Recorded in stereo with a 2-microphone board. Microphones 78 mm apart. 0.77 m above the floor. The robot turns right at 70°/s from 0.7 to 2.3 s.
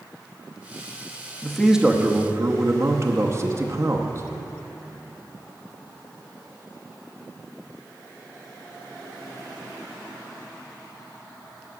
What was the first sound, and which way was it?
A man speaking, 170° left.